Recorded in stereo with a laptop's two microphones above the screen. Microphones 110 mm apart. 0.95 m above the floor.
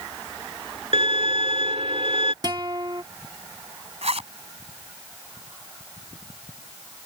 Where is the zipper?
70° right (ahead or behind).